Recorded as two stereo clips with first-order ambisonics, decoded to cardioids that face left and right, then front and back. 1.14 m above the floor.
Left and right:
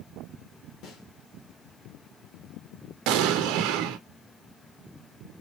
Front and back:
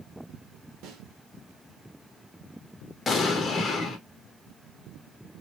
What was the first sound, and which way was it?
A snare drum, 140° left.